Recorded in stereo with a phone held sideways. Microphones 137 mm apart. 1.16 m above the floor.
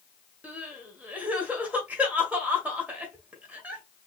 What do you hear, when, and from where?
0.4 s crying: 10° right (ahead or behind), 1.4 m